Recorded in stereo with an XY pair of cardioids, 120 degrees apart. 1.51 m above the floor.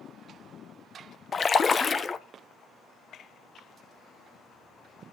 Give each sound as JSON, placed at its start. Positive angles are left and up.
{"t": 1.3, "sound": "a splash", "azimuth_deg": 30, "distance_m": 1.0}